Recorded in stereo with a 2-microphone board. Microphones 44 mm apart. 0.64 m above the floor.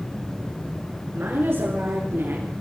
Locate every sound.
1.1 s a woman speaking: 70° right (ahead or behind), 10 m; by 2.5 s 75° right (ahead or behind), 8.5 m